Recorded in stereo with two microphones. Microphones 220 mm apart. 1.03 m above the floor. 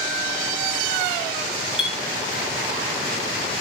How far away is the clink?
About 1.9 m.